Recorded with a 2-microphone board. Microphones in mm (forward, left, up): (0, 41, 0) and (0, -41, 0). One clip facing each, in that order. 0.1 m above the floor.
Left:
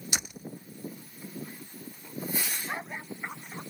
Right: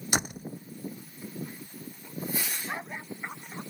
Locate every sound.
0.1 s a door slam: 45° right (ahead or behind)